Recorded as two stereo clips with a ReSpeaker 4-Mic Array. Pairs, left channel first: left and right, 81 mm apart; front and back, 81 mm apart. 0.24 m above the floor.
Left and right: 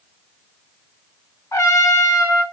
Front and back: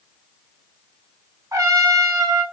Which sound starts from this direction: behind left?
A trumpet, at 1.5 s.